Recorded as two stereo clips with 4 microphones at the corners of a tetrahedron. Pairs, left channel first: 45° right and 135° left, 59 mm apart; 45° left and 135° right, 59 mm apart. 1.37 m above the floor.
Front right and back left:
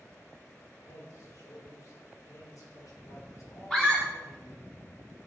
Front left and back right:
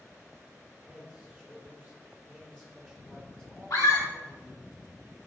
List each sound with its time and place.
0.8 s a man speaking: 30° right, 4.5 m
3.7 s a scream: 35° left, 4.5 m